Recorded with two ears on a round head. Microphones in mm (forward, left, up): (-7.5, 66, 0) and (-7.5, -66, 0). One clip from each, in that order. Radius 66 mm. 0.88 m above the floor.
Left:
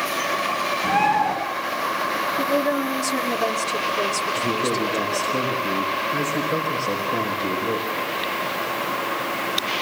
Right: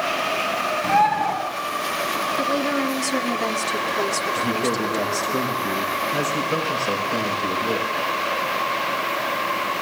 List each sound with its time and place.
0.8 s a bird: 65° right (ahead or behind), 9 m
2.4 s a woman speaking: 30° right (ahead or behind), 2.5 m
4.4 s a man speaking: 60° right (ahead or behind), 5.5 m